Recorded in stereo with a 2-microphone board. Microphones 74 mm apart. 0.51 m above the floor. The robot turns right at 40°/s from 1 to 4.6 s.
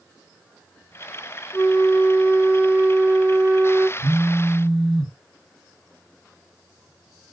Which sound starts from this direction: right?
A phone buzzing, at 4.0 s.